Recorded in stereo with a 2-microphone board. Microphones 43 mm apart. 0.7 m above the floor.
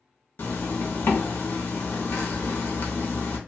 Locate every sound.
0.4 s a zipper: 50° left (ahead or behind), 0.8 m